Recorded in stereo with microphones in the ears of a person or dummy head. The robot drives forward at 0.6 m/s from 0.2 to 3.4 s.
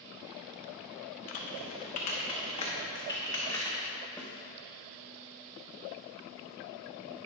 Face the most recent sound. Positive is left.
turn(degrees=10)  # may be behind; listen again after turning